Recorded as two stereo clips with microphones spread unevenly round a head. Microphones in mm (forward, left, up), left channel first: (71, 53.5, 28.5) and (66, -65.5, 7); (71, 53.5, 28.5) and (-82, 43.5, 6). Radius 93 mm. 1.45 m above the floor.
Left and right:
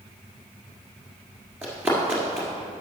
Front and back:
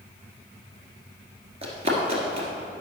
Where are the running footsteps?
175° right, 1.5 m.